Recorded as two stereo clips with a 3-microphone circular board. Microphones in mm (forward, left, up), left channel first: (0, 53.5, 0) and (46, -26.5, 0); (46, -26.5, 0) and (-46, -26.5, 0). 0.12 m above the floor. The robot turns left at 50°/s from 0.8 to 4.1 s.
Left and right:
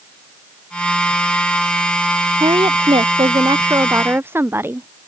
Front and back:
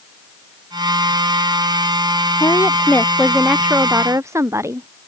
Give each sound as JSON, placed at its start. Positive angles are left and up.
{"t": 2.4, "sound": "a woman speaking", "azimuth_deg": -40}